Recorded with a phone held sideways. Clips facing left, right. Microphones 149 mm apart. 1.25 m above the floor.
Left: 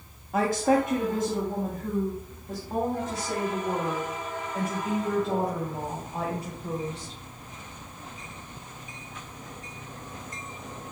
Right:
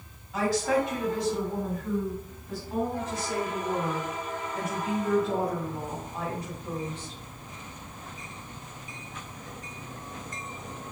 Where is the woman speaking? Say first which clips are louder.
Left 3 dB; 55° left (ahead or behind), 1.1 m; by 7.2 s 35° left (ahead or behind), 5 m.